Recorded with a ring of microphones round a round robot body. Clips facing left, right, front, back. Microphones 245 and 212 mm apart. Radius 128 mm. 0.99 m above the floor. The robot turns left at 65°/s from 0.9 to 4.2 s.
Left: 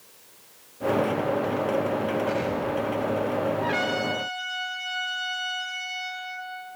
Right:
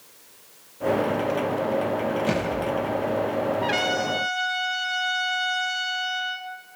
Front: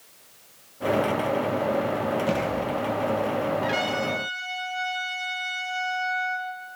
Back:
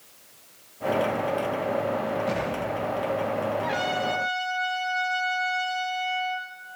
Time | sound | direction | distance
2.3 | a thud | 50° right | 9.5 m
3.6 | a trumpet | 55° right | 4 m